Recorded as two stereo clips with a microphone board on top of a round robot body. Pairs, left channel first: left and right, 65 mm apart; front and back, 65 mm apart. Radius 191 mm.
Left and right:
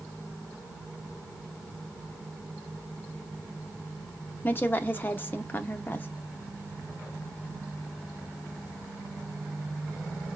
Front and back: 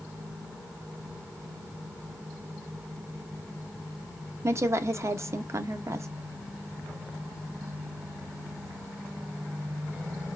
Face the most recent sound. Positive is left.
turn(degrees=145)